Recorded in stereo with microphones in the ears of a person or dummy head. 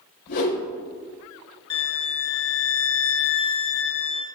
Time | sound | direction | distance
0.3 | a whoosh | 65° left (ahead or behind) | 5.5 m
1.7 | a violin | 10° left (ahead or behind) | 0.6 m